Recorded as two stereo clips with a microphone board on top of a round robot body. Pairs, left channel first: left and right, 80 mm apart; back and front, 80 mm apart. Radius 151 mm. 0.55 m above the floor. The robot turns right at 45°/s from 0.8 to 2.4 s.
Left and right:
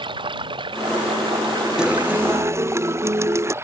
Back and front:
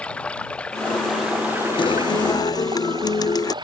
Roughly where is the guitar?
Behind.